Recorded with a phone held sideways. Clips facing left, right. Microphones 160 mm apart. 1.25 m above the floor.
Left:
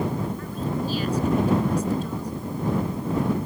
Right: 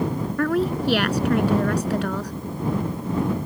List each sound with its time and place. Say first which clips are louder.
0.4 s a woman speaking: right 7 dB; 80° right